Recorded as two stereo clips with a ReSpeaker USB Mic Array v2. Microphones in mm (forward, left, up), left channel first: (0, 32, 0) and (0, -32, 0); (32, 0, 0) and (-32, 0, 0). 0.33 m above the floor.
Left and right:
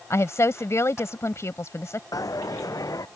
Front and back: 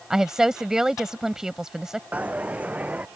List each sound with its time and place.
0.1 s a woman speaking: 100° left
2.1 s a dropped coin: 115° left